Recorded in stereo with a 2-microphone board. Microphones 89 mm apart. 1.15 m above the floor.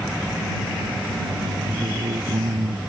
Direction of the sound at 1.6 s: 80° right.